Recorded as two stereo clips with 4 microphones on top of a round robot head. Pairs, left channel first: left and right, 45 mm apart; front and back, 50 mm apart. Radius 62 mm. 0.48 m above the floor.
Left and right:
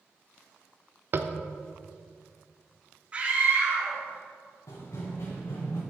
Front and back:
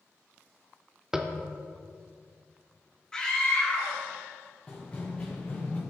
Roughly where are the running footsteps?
Left.